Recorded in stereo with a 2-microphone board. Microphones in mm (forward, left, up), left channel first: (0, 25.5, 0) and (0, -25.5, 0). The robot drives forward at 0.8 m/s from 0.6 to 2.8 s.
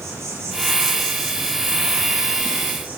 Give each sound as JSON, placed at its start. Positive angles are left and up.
{"t": 0.0, "sound": "an insect", "side_deg": -70, "distance_m": 1.4}